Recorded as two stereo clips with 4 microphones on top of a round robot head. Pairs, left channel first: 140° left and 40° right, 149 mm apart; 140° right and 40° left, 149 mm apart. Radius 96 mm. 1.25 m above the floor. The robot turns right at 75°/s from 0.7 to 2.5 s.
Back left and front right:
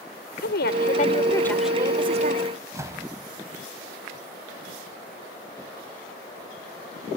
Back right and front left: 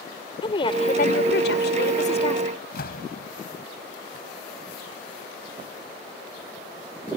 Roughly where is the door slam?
Right.